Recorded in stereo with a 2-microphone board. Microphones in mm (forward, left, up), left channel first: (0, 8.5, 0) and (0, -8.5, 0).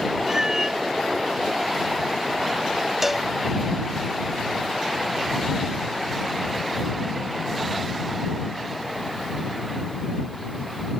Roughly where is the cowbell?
Centre.